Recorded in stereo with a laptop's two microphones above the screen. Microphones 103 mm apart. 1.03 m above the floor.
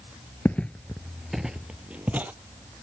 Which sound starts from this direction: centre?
Footsteps, at 0.5 s.